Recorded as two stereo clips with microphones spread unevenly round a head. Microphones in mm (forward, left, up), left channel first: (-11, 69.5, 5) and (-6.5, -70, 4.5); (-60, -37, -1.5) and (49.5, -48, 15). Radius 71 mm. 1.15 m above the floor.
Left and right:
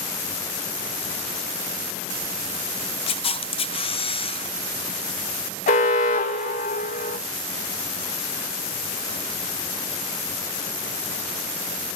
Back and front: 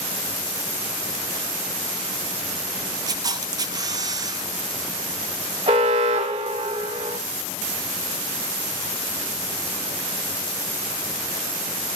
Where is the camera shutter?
55° left, 0.8 m.